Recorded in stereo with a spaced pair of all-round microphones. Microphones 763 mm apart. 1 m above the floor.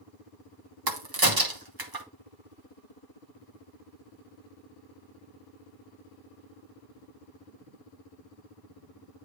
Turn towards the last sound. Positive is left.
turn(degrees=-25)  # may be behind; listen again after turning